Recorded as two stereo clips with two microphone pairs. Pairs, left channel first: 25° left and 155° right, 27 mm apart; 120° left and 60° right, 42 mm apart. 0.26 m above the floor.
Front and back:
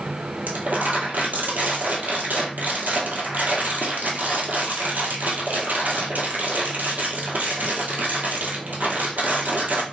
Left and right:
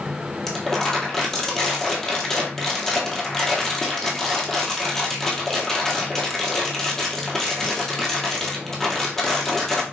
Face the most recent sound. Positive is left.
turn(degrees=-160)